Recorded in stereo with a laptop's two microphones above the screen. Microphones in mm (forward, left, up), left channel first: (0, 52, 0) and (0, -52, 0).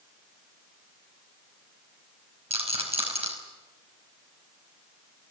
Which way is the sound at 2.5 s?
85° right.